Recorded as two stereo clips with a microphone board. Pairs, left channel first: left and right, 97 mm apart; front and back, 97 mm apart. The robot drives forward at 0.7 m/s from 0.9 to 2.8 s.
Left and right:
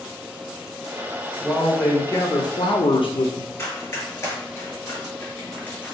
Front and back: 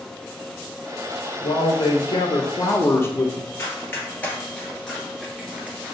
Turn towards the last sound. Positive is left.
turn(degrees=140)